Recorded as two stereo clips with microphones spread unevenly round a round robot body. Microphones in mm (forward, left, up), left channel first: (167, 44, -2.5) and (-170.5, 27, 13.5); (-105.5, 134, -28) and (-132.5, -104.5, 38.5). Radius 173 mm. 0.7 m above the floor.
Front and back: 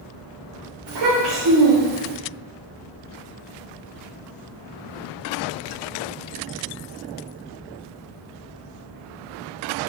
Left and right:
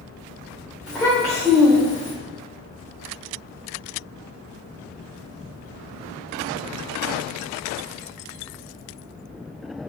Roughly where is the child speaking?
Behind.